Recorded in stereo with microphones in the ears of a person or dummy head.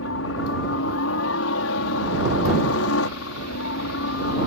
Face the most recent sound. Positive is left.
turn(degrees=70)  # may be behind; listen again after turning